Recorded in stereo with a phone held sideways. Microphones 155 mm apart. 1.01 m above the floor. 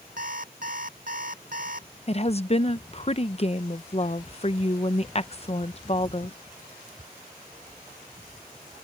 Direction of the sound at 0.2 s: 65° right (ahead or behind).